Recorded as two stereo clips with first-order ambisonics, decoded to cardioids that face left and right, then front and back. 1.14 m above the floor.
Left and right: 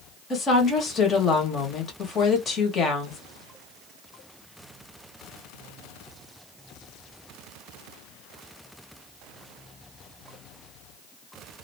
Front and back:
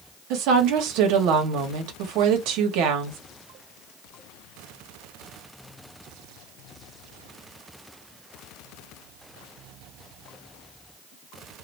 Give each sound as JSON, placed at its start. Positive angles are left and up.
{"t": 0.3, "sound": "a woman speaking", "azimuth_deg": 155, "distance_m": 1.3}